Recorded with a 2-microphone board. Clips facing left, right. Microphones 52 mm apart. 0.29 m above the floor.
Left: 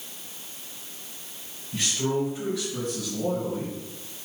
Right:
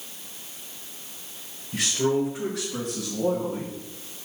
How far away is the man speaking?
About 3 m.